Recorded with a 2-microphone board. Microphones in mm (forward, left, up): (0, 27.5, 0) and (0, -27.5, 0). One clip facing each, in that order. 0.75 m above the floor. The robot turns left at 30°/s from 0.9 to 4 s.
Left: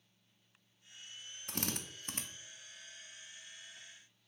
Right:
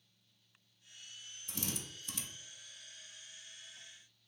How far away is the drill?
About 0.5 m.